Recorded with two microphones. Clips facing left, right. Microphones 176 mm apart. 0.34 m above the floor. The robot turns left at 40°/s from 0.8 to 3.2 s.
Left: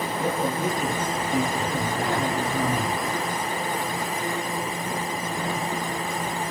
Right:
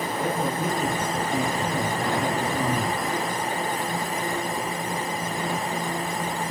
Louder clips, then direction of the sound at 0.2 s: Left 1 dB; 165° left.